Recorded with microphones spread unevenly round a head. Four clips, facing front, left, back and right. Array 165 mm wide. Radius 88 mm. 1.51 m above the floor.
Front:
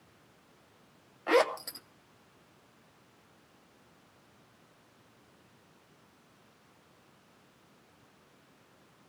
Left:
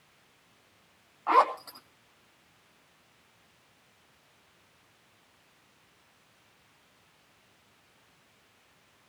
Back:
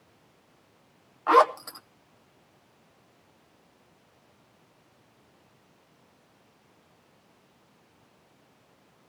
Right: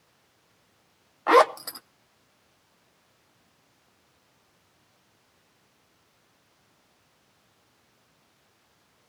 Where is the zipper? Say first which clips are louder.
Right 5 dB, back 7 dB; 75° right, 0.8 m.